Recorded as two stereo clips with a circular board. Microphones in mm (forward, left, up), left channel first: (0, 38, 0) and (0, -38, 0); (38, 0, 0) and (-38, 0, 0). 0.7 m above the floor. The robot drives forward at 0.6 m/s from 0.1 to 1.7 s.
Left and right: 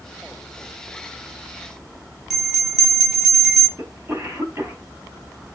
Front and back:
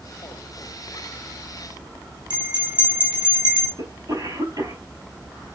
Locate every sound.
2.3 s a bell: straight behind, 4 m
3.8 s a cough: 150° right, 4.5 m